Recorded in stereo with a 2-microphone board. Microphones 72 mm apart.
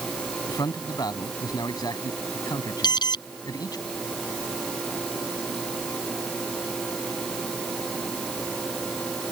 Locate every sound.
0.5 s a man speaking: 65° left (ahead or behind)
2.8 s an alarm: 75° left (ahead or behind)